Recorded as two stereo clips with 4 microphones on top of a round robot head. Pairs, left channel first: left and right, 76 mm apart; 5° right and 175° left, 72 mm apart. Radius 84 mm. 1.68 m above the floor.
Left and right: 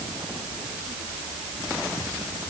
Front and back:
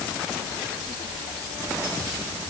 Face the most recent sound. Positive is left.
No sound to turn to.